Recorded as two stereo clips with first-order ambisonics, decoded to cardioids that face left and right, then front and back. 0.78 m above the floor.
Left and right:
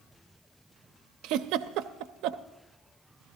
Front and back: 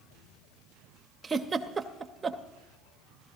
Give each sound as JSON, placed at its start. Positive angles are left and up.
{"t": 1.2, "sound": "a giggle", "azimuth_deg": -110, "distance_m": 0.6}